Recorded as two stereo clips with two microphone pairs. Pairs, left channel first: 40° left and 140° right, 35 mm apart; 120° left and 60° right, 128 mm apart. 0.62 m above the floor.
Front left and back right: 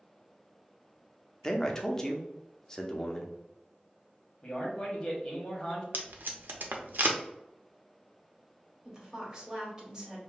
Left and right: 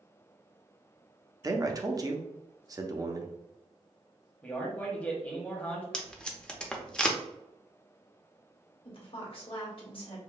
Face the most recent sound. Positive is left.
turn(degrees=150)